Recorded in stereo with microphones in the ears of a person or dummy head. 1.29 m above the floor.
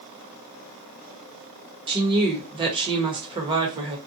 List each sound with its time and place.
1.9 s a woman speaking: 25° right (ahead or behind), 0.9 m